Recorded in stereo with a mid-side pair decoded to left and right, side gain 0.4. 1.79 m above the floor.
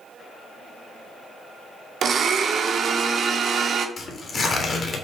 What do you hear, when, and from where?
2.0 s a blender: 60° right, 0.6 m
4.0 s tearing paper: 45° left, 1.0 m